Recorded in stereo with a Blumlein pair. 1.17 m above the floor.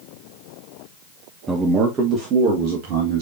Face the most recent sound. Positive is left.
turn(degrees=-45)